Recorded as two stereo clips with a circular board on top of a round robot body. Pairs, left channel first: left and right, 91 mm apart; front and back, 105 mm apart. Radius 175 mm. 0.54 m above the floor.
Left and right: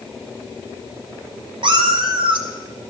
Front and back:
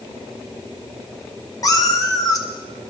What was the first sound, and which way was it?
A cat meowing, 60° right.